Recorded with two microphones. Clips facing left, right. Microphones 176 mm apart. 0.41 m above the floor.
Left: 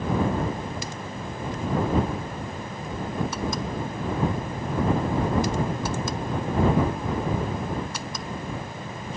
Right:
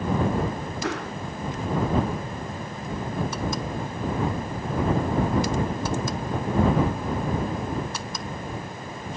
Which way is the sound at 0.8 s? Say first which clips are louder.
Right 6 dB; 75° right (ahead or behind).